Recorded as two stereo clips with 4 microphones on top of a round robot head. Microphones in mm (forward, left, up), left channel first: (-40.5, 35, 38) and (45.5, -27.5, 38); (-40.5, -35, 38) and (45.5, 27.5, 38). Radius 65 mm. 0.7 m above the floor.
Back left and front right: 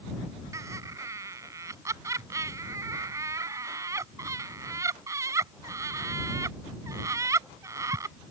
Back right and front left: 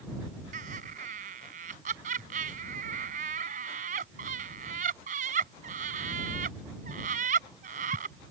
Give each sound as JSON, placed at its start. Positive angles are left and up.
{"t": 0.5, "sound": "laughter", "azimuth_deg": 30}